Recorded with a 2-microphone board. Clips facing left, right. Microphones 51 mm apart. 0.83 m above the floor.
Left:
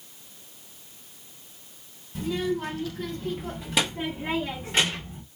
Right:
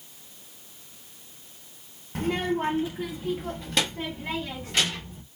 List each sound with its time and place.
2.1 s a child speaking: 50° right (ahead or behind), 0.8 m; by 5.2 s 25° left (ahead or behind), 2.0 m